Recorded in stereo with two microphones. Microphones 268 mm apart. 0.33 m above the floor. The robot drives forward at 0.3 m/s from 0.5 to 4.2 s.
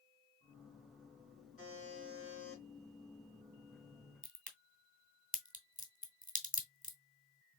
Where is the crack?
30° right (ahead or behind), 1.1 m.